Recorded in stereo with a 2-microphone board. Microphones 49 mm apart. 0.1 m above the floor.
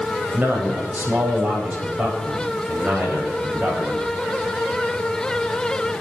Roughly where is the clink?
I don't hear a clink.